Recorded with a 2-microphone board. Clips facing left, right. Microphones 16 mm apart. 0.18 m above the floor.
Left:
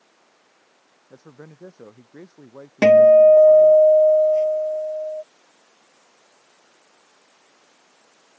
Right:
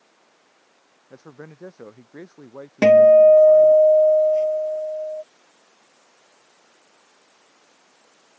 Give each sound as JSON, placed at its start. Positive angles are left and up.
{"t": 1.1, "sound": "a man speaking", "side_deg": -25}
{"t": 2.8, "sound": "a guitar", "side_deg": 10}